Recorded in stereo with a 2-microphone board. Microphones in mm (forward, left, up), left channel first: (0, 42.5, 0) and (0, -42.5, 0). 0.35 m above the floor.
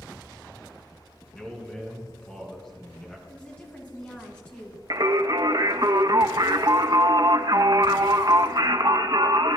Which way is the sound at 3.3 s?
15° left (ahead or behind).